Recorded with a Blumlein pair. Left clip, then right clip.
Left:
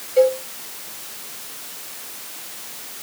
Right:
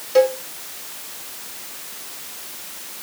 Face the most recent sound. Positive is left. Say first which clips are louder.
# even
turn(degrees=-45)